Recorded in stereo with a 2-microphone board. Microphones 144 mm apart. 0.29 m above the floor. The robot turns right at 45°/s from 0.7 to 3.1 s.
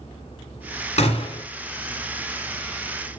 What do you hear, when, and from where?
1.0 s a gunshot: 55° left (ahead or behind), 1.6 m; by 1.4 s 35° left (ahead or behind), 1.6 m